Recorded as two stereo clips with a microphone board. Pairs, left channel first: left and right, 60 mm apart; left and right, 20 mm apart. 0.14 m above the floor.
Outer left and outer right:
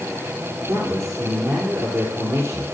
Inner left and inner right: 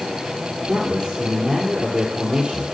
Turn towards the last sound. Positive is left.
turn(degrees=-55)  # may be behind; listen again after turning